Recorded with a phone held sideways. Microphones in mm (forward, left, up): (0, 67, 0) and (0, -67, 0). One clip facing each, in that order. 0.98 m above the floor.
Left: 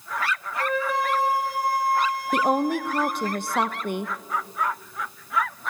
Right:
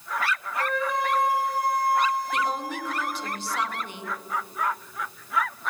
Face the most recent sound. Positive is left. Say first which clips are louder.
# left 6 dB
turn(degrees=55)  # may be behind; listen again after turning